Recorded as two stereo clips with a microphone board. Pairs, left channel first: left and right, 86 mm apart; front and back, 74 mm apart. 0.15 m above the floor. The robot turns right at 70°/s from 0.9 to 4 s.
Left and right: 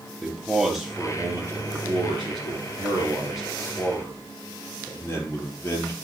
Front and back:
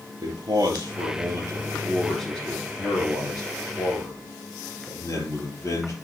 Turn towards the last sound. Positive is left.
turn(degrees=35)